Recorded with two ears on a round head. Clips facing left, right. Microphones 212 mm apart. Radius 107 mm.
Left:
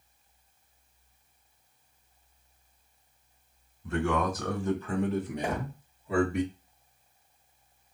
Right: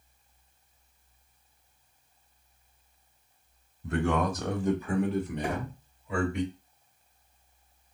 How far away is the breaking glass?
No breaking glass in this recording.